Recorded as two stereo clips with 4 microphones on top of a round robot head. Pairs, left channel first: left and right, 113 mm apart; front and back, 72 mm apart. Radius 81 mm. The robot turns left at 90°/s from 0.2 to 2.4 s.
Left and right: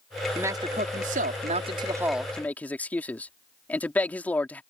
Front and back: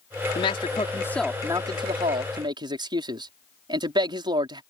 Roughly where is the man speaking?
Ahead.